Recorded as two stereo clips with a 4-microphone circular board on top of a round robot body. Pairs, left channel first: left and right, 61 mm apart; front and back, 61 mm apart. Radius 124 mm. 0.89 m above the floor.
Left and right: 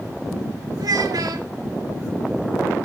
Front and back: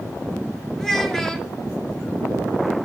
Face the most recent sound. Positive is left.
turn(degrees=-85)